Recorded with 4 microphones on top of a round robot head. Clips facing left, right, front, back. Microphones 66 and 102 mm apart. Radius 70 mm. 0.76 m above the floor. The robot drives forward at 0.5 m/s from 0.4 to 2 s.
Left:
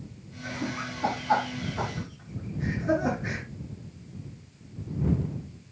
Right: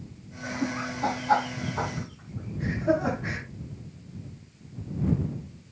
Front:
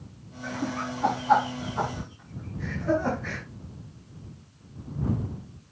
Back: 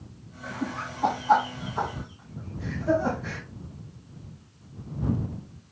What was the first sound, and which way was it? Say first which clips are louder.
Laughter: right 3 dB, front 2 dB; 105° right.